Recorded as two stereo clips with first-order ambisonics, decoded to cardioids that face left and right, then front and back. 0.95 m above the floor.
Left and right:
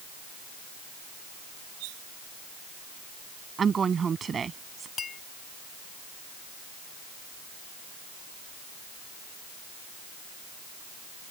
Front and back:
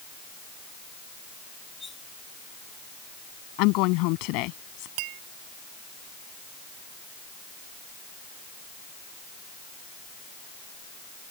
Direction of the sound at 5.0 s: 160° left.